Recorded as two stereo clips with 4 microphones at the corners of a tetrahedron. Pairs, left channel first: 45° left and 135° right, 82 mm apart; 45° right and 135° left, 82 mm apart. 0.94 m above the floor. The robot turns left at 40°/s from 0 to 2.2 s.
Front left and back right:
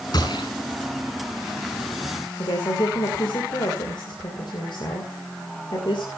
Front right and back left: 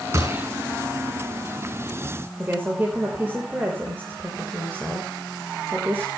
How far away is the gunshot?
About 5.5 m.